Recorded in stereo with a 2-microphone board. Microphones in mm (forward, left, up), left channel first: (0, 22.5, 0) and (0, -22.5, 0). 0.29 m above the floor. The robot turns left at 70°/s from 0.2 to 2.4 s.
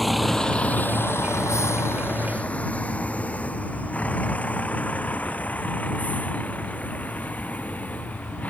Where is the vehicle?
Centre (ahead or behind); by 8.5 s 35° left (ahead or behind).